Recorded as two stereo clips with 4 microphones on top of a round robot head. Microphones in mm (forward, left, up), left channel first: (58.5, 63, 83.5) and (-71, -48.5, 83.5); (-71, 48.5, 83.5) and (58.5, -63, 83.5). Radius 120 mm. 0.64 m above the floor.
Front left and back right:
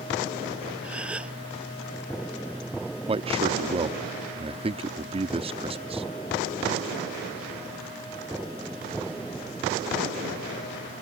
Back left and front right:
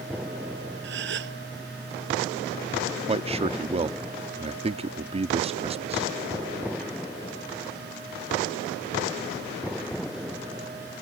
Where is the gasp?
55° right.